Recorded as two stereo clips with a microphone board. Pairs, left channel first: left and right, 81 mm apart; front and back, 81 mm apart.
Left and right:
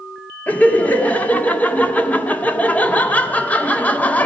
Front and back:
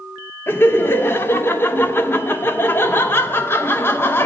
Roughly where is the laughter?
Ahead left.